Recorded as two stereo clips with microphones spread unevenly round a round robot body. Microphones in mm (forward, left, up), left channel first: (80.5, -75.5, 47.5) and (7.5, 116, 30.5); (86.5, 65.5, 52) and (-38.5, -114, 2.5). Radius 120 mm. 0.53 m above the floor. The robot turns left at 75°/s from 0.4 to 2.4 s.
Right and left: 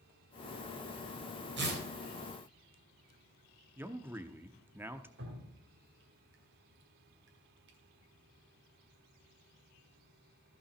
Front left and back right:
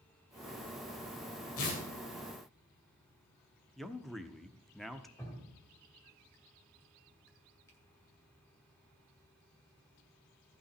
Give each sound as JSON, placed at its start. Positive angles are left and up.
{"t": 1.6, "sound": "tearing paper", "azimuth_deg": 90, "distance_m": 3.5}
{"t": 3.8, "sound": "a man speaking", "azimuth_deg": 170, "distance_m": 0.7}
{"t": 5.2, "sound": "dripping", "azimuth_deg": 140, "distance_m": 1.9}